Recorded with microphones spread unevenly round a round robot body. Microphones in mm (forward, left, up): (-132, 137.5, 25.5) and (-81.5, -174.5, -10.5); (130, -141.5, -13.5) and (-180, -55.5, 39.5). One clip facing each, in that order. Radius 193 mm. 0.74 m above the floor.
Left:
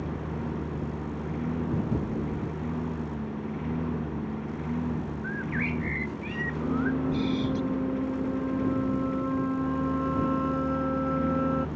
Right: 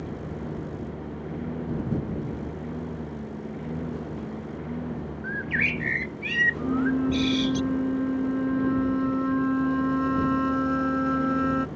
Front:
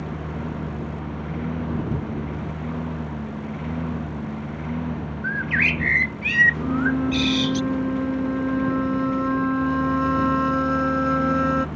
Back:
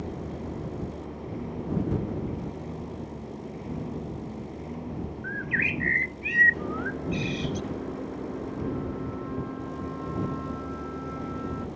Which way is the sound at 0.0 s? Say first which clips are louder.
Left 1 dB, front 4 dB; 20° left.